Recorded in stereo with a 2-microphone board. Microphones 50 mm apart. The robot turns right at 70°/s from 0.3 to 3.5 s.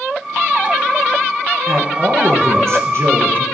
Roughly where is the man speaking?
Behind.